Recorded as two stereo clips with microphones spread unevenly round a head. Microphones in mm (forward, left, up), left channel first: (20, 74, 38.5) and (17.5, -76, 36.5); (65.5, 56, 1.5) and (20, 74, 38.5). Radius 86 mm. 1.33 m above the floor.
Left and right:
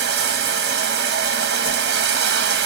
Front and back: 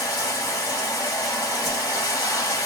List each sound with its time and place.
0.0 s running water: 95° right, 1.0 m
1.6 s a whoosh: 70° left, 1.3 m